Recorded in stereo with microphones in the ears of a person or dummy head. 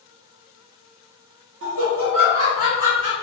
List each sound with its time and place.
1.6 s laughter: 60° right (ahead or behind), 0.6 m; by 3.1 s 35° right (ahead or behind), 1.3 m